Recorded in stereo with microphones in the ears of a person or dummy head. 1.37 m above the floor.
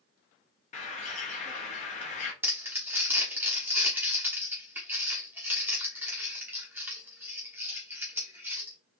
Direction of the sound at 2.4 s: 5° right (ahead or behind).